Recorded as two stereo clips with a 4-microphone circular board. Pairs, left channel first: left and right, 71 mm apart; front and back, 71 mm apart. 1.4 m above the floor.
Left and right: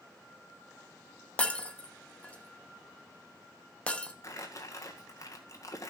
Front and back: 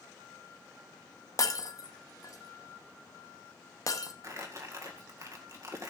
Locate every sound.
1.4 s breaking glass: 20° left, 0.9 m
4.2 s crumpling: 135° left, 1.7 m